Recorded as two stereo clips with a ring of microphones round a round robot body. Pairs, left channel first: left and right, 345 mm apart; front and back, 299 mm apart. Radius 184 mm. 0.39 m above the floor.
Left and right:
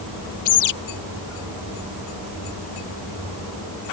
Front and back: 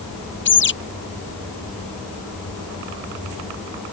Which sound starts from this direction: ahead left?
A bird, at 0.5 s.